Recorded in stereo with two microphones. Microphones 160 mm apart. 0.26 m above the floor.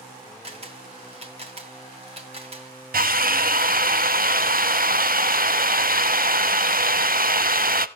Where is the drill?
65° right (ahead or behind), 0.6 m.